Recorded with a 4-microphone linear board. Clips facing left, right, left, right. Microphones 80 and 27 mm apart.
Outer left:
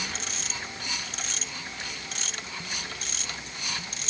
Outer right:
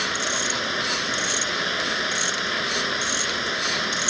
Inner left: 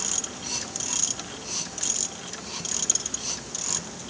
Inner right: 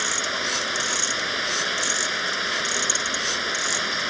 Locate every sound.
0.0 s running water: 80° right